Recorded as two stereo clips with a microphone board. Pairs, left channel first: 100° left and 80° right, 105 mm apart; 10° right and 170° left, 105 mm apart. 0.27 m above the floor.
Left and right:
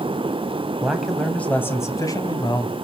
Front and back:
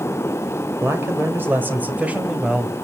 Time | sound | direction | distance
0.8 | a man speaking | 150° right | 1.7 m